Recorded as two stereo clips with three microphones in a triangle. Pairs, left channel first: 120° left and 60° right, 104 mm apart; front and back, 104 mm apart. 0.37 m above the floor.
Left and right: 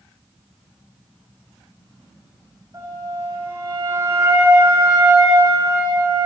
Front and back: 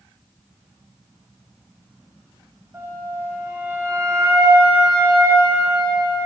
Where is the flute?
115° right, 4.5 m.